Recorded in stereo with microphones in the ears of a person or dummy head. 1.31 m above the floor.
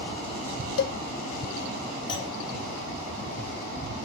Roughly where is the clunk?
Left.